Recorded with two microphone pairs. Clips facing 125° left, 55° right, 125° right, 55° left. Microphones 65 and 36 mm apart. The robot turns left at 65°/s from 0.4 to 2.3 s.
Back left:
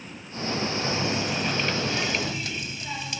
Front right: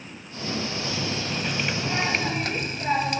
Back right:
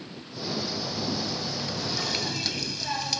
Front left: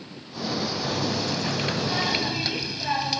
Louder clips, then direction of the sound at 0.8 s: Back left 3 dB, front left 4 dB; 75° left.